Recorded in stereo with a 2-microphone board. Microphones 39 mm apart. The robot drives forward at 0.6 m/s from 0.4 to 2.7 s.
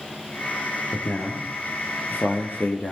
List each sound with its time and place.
0.9 s a man speaking: 60° left (ahead or behind), 2.5 m; by 2.9 s 55° left (ahead or behind), 3 m